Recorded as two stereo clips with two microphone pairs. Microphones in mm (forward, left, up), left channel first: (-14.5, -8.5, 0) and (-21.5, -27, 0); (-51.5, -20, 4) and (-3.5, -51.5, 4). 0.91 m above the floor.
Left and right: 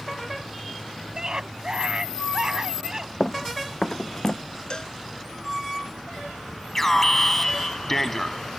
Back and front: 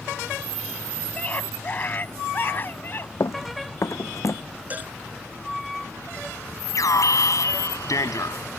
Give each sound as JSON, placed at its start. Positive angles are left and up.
{"t": 1.1, "sound": "a scream", "azimuth_deg": -155}
{"t": 3.2, "sound": "running footsteps", "azimuth_deg": 150}
{"t": 4.7, "sound": "a cowbell", "azimuth_deg": 25}
{"t": 6.8, "sound": "an alarm", "azimuth_deg": 145}